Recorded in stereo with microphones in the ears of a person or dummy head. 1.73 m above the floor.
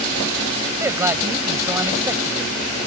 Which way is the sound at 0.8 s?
15° right (ahead or behind).